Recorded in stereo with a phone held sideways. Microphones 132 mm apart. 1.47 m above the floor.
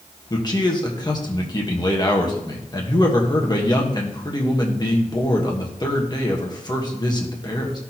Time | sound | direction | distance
0.3 | a man speaking | 30° left (ahead or behind) | 1.3 m